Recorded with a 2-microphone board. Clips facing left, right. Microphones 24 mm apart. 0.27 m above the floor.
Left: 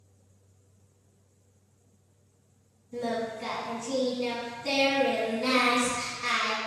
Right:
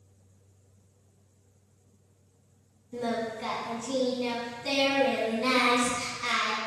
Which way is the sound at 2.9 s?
25° right (ahead or behind).